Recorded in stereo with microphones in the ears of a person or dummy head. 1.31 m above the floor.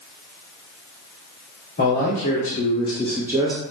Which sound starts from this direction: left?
A man speaking, at 1.8 s.